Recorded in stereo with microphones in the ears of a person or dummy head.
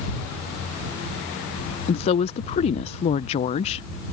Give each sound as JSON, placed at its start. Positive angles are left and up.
{"t": 1.9, "sound": "a woman speaking", "side_deg": 40}